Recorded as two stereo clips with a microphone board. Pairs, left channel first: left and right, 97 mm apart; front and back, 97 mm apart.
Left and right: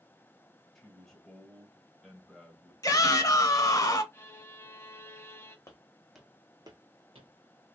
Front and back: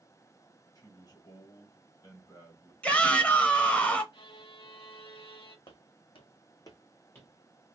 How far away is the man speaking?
About 1.7 m.